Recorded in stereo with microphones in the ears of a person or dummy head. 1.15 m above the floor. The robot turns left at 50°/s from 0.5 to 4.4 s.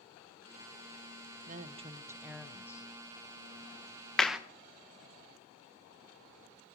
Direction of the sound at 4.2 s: 5° left (ahead or behind).